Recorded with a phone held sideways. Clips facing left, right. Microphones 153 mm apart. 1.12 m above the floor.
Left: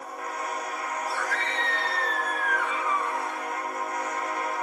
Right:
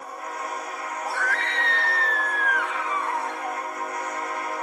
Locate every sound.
1.1 s a scream: 60° right (ahead or behind), 1.5 m; by 3.6 s 65° right (ahead or behind), 2.5 m